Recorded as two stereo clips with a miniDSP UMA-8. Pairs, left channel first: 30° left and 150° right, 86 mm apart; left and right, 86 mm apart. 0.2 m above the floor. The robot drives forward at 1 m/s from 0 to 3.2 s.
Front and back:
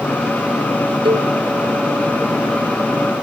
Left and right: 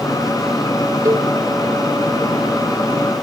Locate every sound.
1.1 s a cowbell: 140° right; by 1.3 s 145° right